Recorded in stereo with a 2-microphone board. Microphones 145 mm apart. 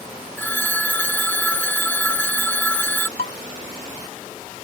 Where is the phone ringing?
15° left (ahead or behind).